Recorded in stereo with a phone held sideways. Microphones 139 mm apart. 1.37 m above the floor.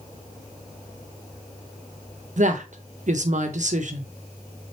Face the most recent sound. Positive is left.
turn(degrees=-55)  # may be behind; listen again after turning